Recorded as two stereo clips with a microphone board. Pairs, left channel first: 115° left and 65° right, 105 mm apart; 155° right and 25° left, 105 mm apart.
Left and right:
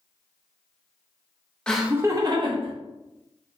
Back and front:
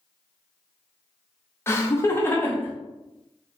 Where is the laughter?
Straight behind, 0.5 m; by 2.7 s 90° right, 1.0 m.